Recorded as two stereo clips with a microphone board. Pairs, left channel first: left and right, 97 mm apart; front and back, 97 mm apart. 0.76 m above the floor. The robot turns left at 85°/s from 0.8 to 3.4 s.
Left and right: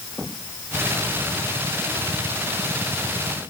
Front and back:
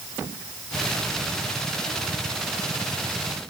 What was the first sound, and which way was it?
Only background noise.